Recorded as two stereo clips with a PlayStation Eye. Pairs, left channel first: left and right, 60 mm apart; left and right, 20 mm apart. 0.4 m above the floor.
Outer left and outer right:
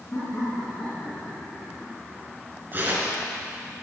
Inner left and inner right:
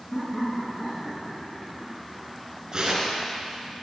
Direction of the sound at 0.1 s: 40° left (ahead or behind).